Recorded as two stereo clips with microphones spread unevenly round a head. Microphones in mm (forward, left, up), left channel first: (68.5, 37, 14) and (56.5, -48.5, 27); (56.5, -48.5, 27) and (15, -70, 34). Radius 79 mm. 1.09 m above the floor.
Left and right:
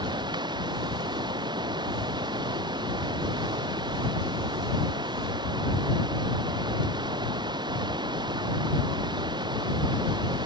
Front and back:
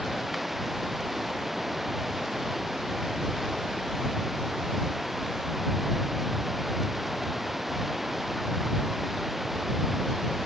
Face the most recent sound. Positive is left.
turn(degrees=-65)